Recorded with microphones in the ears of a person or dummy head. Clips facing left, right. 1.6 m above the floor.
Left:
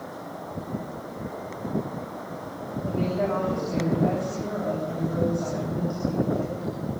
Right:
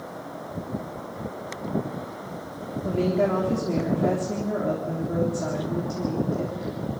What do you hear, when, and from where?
2.8 s a woman speaking: 45° right (ahead or behind), 3.5 m